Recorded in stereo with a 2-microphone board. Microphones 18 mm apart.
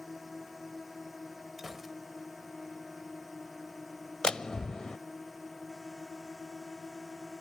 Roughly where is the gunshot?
Centre.